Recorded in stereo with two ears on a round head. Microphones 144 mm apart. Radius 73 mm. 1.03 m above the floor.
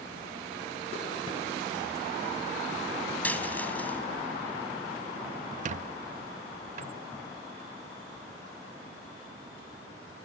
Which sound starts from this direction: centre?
A dropped coin, at 3.2 s.